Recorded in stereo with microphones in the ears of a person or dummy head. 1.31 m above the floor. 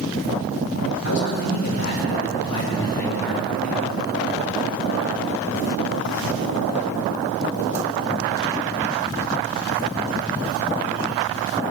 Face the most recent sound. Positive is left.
turn(degrees=-5)  # may be behind; listen again after turning